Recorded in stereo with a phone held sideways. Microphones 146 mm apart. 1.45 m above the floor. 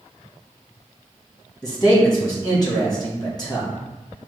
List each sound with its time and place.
1.6 s a man speaking: 30° left (ahead or behind), 1.6 m